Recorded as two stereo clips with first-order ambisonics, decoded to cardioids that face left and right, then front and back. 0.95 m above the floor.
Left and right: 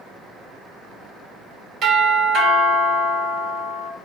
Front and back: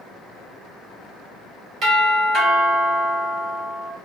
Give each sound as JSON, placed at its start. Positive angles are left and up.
{"t": 1.8, "sound": "a doorbell", "azimuth_deg": -140, "distance_m": 1.9}